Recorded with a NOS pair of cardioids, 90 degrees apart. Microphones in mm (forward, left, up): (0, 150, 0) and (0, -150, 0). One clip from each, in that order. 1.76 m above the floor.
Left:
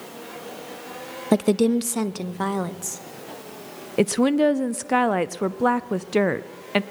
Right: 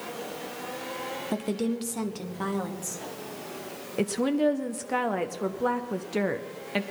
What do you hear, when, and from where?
1.3 s a woman speaking: 50° left, 0.5 m; by 3.0 s 35° left, 1.5 m
4.0 s a woman speaking: 30° left, 0.5 m